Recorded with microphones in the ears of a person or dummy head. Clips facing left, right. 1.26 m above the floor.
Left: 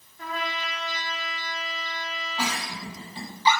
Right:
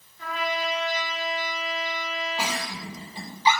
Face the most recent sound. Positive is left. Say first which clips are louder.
# even
turn(degrees=-10)  # may be behind; listen again after turning